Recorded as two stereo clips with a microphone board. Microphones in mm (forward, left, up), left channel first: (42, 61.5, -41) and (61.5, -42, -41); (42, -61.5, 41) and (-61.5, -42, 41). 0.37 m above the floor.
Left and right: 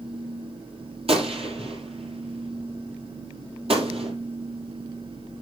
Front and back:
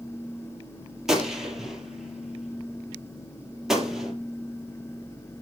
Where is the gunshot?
105° right, 4.5 m.